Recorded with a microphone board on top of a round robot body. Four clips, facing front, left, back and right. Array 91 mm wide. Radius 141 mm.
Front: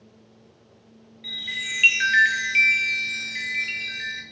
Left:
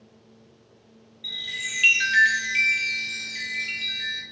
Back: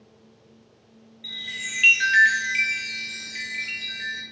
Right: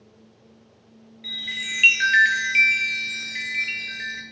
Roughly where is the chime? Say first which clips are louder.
Right 2 dB, front 2 dB; right.